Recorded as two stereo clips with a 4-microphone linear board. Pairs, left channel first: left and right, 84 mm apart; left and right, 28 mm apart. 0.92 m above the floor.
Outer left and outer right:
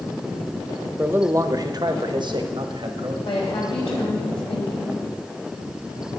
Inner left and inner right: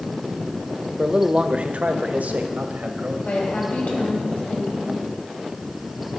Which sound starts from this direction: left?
A woman speaking, at 3.2 s.